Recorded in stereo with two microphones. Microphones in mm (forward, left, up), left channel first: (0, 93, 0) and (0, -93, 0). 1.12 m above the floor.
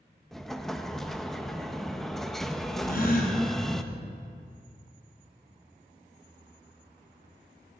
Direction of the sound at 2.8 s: 55° left (ahead or behind).